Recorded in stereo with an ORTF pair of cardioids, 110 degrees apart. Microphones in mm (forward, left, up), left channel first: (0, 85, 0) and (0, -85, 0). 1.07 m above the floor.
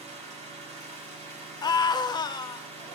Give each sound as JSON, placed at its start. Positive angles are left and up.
{"t": 0.0, "sound": "an engine running", "azimuth_deg": -45, "distance_m": 5.5}
{"t": 1.6, "sound": "a scream", "azimuth_deg": 25, "distance_m": 1.1}